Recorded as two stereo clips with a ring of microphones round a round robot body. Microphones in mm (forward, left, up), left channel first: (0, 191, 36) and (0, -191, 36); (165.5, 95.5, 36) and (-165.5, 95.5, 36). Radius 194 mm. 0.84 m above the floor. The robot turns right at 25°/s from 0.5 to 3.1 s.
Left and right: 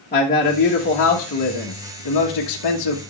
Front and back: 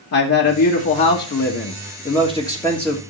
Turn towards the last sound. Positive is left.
turn(degrees=95)